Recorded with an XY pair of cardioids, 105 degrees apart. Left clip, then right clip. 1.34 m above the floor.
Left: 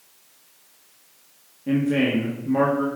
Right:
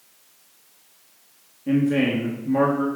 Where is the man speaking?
Straight ahead, 1.3 m.